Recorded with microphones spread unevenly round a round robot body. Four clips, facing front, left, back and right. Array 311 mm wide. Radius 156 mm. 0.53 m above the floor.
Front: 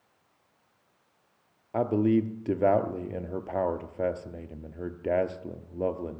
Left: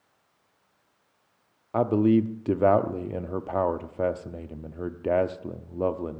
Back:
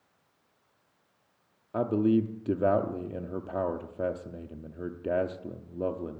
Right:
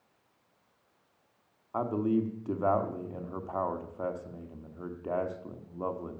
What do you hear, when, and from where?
1.7 s a man speaking: 95° left, 0.7 m